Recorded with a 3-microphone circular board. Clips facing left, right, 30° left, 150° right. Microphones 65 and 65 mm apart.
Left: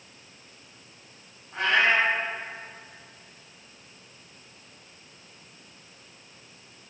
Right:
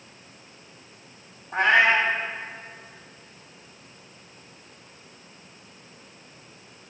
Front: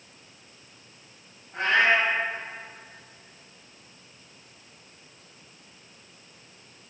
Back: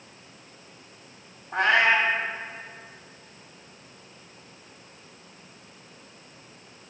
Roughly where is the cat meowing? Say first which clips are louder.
Right 4 dB, back 1 dB; behind right.